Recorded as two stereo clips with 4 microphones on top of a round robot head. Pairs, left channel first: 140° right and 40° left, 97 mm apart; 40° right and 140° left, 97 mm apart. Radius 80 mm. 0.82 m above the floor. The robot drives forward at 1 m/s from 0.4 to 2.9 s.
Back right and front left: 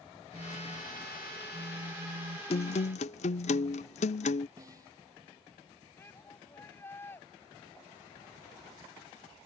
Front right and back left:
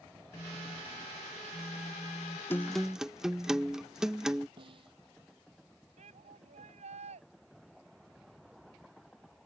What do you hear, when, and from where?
0.3 s a phone buzzing: 10° left; by 2.4 s 55° left
2.5 s a guitar: 110° right; by 4.5 s 135° right
4.6 s a snare drum: 100° left
6.0 s a shout: 150° left